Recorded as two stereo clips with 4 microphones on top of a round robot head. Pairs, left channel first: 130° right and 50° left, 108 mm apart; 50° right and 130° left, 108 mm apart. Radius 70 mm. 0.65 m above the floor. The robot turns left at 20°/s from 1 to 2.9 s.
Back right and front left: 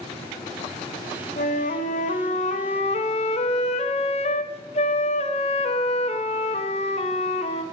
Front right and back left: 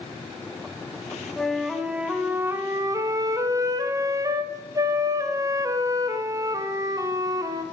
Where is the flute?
135° right, 0.9 m; by 7.6 s 165° right, 0.9 m.